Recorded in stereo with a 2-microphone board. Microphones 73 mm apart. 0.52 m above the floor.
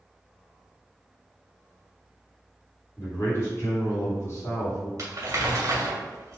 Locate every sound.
3.0 s a man speaking: 40° left (ahead or behind), 1.7 m
5.0 s crumpling: 45° right (ahead or behind), 1.4 m